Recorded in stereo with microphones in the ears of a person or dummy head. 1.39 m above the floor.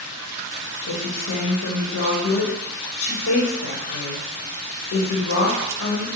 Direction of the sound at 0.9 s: 75° left (ahead or behind).